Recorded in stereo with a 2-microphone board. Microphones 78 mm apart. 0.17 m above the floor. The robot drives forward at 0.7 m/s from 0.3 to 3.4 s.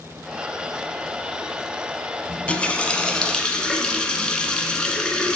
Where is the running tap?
15° left (ahead or behind), 0.8 m; by 5.4 s 10° left (ahead or behind), 1.2 m.